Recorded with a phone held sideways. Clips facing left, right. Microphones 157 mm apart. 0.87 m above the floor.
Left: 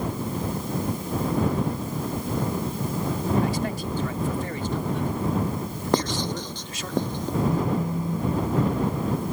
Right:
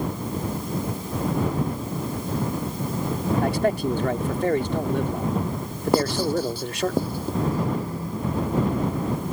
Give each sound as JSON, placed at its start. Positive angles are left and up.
{"t": 3.4, "sound": "a man speaking", "side_deg": -60}
{"t": 5.9, "sound": "writing", "side_deg": -5}
{"t": 7.4, "sound": "a phone buzzing", "side_deg": 20}